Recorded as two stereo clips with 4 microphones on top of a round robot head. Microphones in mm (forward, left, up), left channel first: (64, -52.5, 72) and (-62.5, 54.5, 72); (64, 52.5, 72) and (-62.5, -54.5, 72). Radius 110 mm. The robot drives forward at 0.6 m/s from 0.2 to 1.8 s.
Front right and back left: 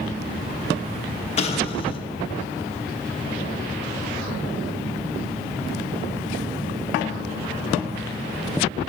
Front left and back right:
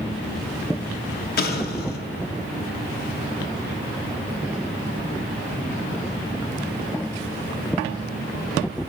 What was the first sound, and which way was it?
An explosion, 10° left.